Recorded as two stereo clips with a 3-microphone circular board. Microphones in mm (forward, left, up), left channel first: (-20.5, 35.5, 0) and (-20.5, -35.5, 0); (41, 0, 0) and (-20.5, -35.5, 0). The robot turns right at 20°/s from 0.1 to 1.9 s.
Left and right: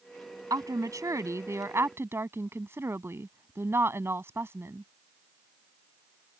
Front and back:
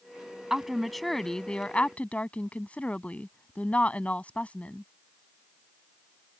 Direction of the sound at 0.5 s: 70° right.